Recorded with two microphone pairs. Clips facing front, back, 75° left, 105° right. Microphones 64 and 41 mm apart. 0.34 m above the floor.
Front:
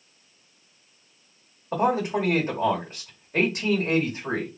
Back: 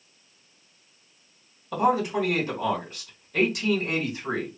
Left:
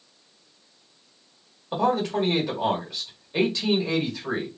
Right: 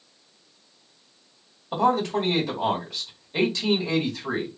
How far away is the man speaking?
About 1.4 m.